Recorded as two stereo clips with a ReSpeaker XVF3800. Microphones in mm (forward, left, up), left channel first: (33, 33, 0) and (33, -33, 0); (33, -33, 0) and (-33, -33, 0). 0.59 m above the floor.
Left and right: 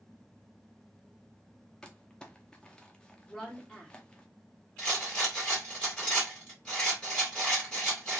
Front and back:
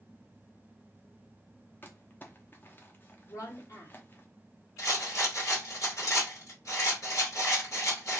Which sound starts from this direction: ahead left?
Crumpling, at 1.8 s.